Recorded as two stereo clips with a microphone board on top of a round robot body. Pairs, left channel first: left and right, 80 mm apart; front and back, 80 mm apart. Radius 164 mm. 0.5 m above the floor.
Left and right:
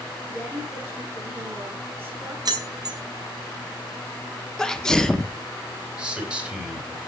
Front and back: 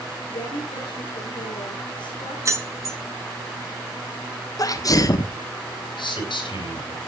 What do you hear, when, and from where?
0.3 s a woman speaking: 25° right, 8.5 m
2.5 s keys jangling: 130° right, 2.5 m
4.6 s a sneeze: 10° left, 1.3 m
6.0 s a man speaking: 10° right, 4 m